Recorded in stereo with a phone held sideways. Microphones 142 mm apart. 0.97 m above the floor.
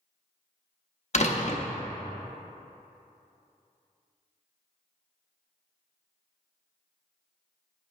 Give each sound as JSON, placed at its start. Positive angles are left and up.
{"t": 1.1, "sound": "a door slam", "side_deg": 50, "distance_m": 0.6}